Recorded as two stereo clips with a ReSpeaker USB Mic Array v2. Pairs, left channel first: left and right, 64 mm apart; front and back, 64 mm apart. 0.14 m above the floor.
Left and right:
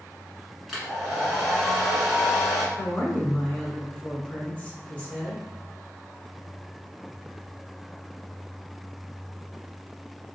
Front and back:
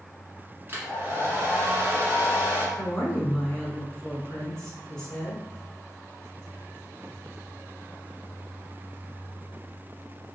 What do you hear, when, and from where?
0.7 s a hair dryer: 175° right, 1.2 m
2.8 s a woman speaking: 55° left, 1.2 m